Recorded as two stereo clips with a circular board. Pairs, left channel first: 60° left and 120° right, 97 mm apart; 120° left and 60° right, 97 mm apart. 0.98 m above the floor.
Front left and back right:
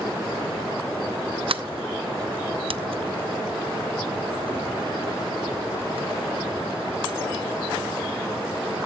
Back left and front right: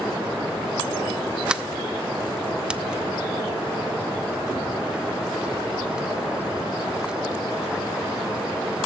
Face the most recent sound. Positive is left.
turn(degrees=-140)